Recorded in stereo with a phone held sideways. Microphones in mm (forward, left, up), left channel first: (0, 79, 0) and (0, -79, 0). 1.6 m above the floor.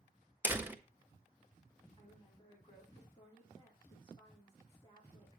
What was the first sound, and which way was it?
A door slam, 10° right (ahead or behind).